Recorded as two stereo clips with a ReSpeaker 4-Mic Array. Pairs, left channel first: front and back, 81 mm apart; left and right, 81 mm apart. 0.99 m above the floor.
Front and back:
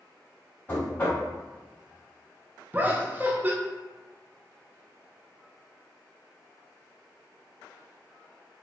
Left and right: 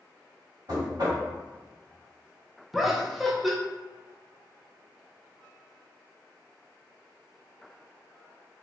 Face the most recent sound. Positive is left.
turn(degrees=-175)